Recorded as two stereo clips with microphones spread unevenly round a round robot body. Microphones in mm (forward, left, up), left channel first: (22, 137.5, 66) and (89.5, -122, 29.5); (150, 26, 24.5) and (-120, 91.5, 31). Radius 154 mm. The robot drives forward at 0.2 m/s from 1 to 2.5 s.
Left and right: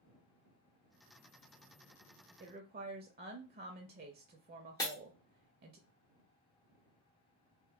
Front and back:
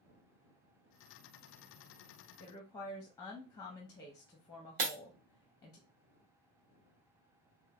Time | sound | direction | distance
2.4 | a woman speaking | 80° right | 0.6 m
4.8 | breaking glass | 175° right | 0.9 m